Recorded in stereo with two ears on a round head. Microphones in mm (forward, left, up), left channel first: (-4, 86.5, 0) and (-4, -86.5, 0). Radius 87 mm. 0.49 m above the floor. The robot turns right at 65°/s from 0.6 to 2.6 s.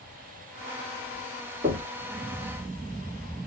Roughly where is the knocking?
Right.